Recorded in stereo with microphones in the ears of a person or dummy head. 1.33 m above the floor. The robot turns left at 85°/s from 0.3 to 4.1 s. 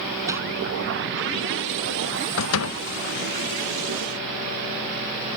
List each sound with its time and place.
0.3 s crumpling: 20° right (ahead or behind); by 0.4 s 10° right (ahead or behind)
2.4 s a door slam: 95° left; by 2.8 s 55° left